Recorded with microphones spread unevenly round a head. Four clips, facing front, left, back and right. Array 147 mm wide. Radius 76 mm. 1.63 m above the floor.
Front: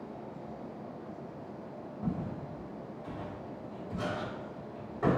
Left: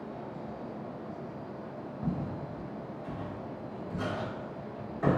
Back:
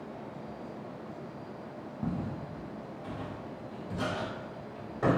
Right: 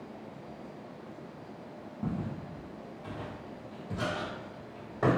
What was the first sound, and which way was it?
Footsteps, 175° left.